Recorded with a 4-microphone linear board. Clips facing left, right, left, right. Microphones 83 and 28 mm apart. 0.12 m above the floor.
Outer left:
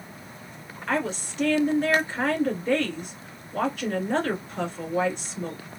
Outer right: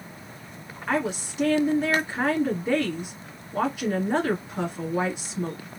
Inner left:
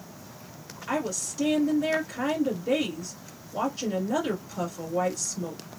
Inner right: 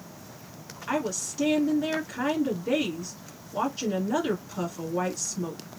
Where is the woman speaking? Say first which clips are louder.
Outer right 1 dB, inner right 1 dB; 10° right (ahead or behind), 1.6 m.